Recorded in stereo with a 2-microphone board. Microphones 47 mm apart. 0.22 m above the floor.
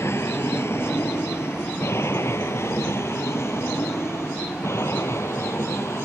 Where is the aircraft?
70° left (ahead or behind); by 6.0 s 75° left (ahead or behind).